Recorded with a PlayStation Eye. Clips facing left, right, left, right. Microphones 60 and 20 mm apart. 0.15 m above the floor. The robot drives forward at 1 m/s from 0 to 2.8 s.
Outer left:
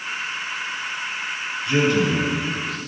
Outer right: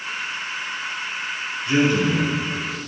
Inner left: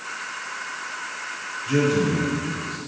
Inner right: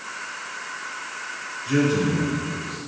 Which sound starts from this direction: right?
A man speaking, at 1.7 s.